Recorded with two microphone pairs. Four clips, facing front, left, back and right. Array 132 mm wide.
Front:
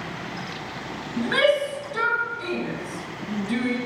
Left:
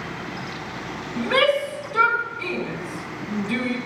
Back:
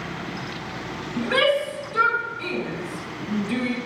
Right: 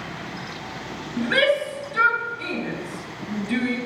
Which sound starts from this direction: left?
A shout, at 1.2 s.